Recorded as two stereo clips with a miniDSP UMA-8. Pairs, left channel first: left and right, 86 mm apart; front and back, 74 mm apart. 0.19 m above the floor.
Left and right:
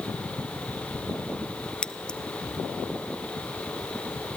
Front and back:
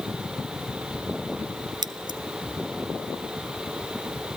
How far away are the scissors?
About 1.0 m.